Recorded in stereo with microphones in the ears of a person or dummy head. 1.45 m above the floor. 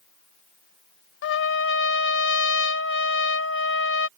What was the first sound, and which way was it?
A trumpet, 80° left.